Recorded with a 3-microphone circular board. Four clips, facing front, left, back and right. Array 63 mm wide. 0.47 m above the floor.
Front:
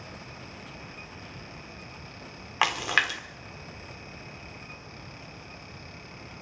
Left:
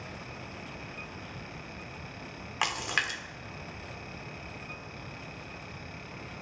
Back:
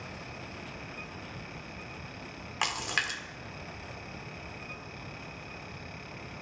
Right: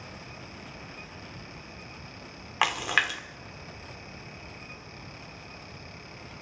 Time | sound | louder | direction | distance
2.6 | a splash | right 5 dB, front 7 dB | 35° right | 1.5 m